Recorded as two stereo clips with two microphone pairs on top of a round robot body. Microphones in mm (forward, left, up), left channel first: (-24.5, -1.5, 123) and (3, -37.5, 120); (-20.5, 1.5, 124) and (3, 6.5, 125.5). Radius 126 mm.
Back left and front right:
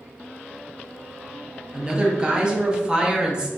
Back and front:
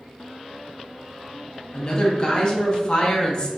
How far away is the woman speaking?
About 1.0 m.